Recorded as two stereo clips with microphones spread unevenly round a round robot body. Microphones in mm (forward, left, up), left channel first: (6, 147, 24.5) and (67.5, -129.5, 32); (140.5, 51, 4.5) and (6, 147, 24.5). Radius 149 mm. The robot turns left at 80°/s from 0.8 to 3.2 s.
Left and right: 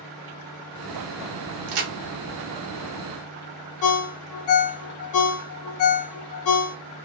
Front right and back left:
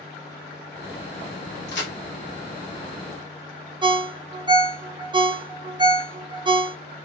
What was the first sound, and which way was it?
A crack, 65° right.